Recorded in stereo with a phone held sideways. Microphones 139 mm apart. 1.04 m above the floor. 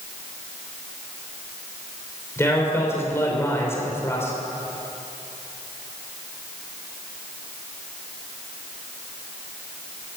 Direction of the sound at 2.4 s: 20° left (ahead or behind).